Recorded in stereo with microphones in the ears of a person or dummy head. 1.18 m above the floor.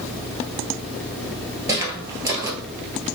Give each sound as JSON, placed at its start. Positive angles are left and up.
{"t": 1.7, "sound": "footsteps", "side_deg": -20, "distance_m": 1.4}